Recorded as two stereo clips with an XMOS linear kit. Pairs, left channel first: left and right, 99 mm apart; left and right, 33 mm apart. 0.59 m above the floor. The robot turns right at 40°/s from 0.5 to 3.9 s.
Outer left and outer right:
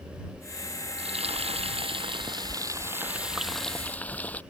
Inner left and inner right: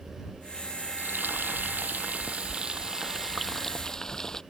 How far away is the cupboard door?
I don't hear a cupboard door.